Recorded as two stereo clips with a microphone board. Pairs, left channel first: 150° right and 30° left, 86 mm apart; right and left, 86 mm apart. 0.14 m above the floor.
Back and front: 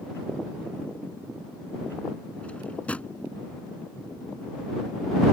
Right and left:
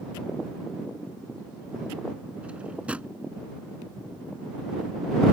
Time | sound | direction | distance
2.4 | a drawer | 150° left | ?